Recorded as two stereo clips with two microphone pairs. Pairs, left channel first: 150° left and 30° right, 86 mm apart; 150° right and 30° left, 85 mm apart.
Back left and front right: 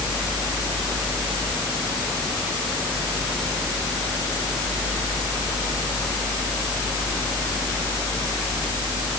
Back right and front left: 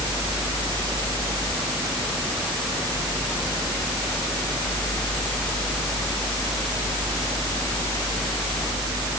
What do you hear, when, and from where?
Only background noise.